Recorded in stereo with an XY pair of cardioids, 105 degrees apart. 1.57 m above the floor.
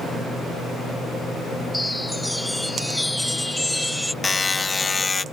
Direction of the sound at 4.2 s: 20° left.